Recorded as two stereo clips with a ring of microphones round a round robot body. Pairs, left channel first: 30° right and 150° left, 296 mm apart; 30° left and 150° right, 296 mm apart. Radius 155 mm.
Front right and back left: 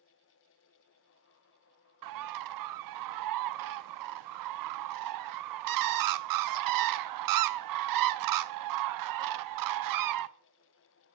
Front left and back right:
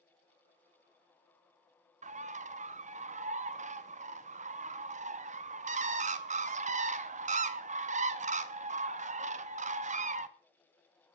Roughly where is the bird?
Behind left.